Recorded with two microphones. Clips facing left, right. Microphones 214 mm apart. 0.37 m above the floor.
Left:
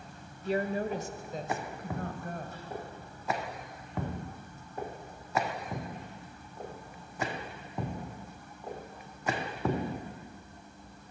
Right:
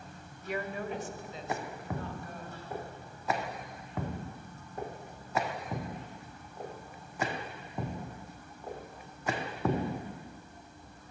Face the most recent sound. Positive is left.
turn(degrees=60)  # may be behind; listen again after turning